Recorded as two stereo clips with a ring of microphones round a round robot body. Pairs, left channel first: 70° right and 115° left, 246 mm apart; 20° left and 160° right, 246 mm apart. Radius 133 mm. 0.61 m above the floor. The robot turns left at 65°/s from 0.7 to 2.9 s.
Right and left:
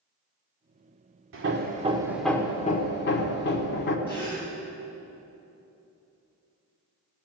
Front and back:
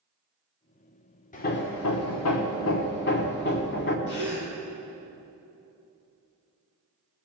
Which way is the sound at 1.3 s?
80° left.